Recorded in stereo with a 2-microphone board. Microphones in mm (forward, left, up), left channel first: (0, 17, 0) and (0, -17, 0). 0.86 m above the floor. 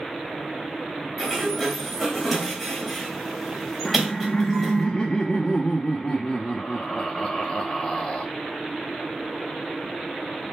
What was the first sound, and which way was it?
A sliding door, 5° left (ahead or behind).